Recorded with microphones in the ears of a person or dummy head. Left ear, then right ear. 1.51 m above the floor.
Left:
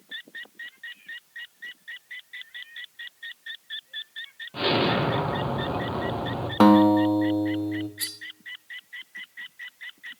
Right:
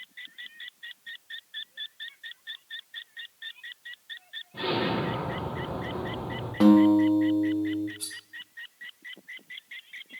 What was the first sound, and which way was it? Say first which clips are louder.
An explosion: left 5 dB; 65° left (ahead or behind).